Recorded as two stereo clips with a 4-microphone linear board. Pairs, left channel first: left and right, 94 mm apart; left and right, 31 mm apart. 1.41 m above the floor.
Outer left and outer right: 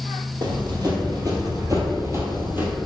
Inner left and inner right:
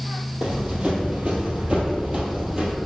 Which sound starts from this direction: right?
Running footsteps, at 0.4 s.